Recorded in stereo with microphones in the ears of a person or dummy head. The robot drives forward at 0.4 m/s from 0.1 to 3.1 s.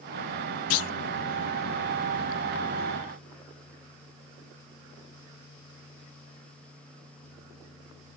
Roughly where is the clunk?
Left.